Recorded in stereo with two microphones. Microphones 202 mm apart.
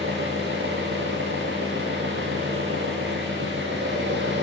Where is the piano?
No piano in this recording.